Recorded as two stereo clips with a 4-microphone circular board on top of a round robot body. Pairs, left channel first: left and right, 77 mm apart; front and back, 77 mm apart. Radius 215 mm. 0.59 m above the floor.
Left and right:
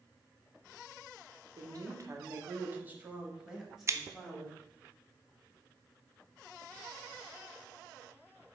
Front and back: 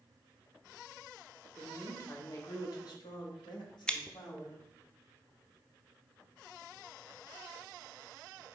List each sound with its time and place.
1.6 s a woman speaking: 60° right, 1.1 m; by 4.6 s 5° left, 1.7 m
3.9 s scissors: 75° right, 0.6 m